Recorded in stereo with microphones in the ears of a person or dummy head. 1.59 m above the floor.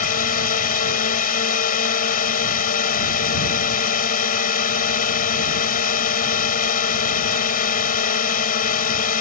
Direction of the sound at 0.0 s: 45° left (ahead or behind).